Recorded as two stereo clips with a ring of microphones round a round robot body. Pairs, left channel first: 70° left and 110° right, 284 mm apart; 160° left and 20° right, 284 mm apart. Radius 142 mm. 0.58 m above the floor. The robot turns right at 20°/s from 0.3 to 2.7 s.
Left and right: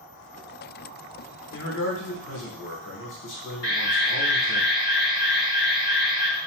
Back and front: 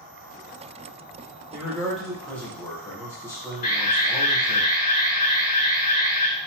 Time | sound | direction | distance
1.5 | a man speaking | 60° left | 1.0 m
3.6 | an alarm | 145° left | 1.0 m